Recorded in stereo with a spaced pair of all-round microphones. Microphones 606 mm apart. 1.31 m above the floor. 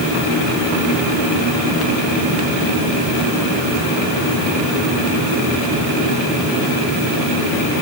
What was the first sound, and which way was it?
Only background noise.